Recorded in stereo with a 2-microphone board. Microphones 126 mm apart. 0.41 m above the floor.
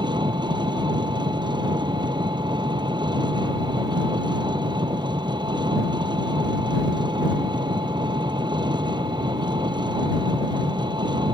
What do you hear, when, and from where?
0.0 s an engine running: 35° right (ahead or behind)